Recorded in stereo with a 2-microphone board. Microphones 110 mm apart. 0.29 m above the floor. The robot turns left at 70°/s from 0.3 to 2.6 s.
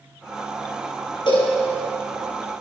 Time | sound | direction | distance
1.3 | a cowbell | 45° left (ahead or behind) | 5 m